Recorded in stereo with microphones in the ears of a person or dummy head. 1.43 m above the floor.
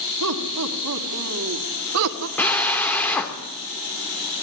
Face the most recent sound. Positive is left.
turn(degrees=15)  # may be behind; listen again after turning